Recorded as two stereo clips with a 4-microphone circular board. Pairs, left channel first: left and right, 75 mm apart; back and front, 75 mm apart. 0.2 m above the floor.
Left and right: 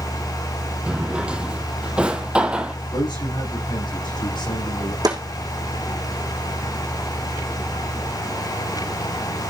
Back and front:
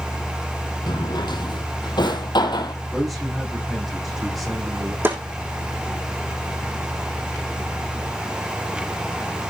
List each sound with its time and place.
0.9 s a drawer: 170° right, 1.7 m
2.9 s a man speaking: 90° left, 8 m
5.0 s a snare drum: 60° right, 5 m